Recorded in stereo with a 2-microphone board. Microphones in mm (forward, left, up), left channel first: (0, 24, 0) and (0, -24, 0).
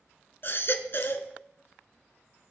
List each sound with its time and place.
0.4 s a baby crying: 55° left (ahead or behind), 1.0 m